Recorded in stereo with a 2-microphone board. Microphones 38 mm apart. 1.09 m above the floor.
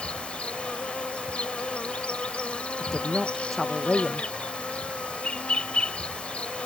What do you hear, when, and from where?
0.0 s an insect: 30° left (ahead or behind)
2.8 s a woman speaking: 5° left (ahead or behind)